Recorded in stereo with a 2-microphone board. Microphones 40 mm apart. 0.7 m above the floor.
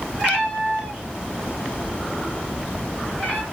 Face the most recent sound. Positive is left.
turn(degrees=0)  # may be behind; listen again after turning